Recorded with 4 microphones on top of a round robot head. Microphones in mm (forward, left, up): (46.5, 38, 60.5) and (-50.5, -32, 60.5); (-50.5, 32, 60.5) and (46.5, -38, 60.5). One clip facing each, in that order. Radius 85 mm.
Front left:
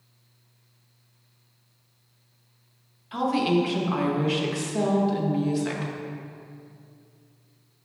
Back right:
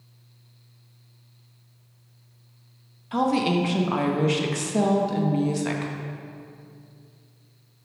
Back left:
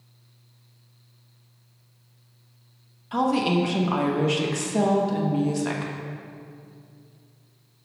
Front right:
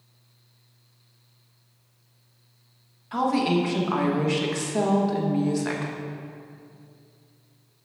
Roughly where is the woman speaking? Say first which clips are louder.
Back right 1 dB, even; behind right.